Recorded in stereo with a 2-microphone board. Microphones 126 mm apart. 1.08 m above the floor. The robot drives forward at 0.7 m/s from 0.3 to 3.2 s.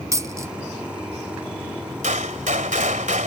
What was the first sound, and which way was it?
A dropped coin, 25° right (ahead or behind).